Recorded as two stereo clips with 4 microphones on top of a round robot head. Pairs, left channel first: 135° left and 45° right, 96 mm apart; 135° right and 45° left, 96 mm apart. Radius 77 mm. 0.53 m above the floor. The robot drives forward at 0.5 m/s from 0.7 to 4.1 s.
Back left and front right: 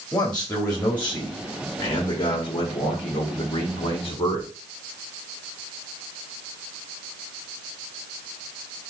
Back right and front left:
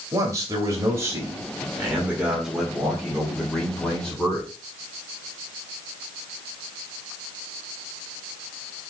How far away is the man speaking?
About 1.3 m.